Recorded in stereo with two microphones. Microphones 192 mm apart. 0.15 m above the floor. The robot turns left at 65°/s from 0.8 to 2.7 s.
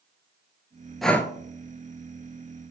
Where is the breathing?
Centre (ahead or behind), 0.5 m; by 1.3 s 20° left (ahead or behind), 0.5 m.